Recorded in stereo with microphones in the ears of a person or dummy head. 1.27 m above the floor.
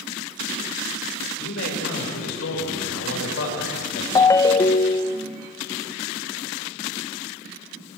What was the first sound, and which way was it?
A man speaking, 75° left (ahead or behind).